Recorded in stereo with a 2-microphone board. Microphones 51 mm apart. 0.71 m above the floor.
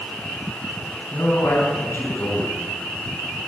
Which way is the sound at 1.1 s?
75° left (ahead or behind).